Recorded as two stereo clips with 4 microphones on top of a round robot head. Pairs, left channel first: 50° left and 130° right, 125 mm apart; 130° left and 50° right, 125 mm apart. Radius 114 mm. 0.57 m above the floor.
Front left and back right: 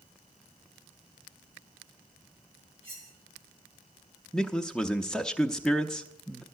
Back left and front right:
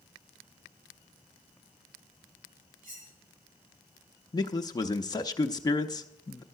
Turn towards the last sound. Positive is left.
turn(degrees=130)